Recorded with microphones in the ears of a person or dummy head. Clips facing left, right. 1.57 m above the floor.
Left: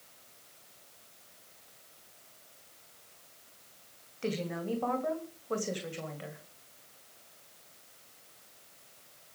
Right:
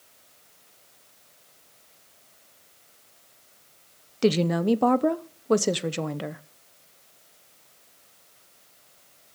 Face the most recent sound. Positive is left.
turn(degrees=-80)